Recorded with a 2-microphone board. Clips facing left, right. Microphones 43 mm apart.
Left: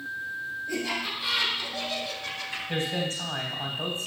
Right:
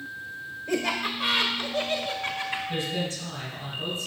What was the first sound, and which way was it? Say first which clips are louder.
Laughter: right 5 dB; 60° right (ahead or behind).